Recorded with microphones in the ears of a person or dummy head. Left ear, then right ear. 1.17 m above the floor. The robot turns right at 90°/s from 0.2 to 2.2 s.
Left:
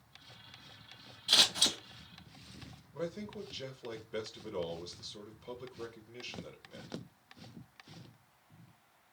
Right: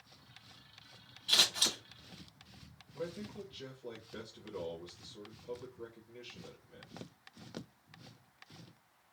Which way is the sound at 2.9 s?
55° left (ahead or behind).